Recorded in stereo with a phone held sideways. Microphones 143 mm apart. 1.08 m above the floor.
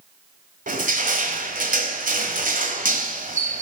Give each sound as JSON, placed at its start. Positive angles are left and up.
{"t": 0.7, "sound": "crushing", "side_deg": -70, "distance_m": 1.8}